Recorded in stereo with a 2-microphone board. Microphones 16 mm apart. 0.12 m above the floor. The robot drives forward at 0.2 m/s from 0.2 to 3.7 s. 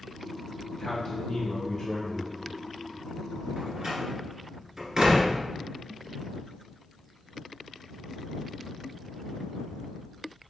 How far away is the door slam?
About 1.4 m.